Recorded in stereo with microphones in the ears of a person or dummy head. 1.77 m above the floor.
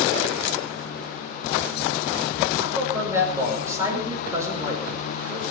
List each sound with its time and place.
2.6 s a man speaking: 15° right (ahead or behind), 6 m